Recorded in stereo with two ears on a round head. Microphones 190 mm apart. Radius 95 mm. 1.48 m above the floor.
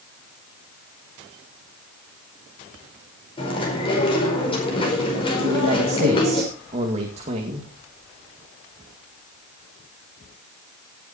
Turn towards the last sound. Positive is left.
turn(degrees=-30)  # may be behind; listen again after turning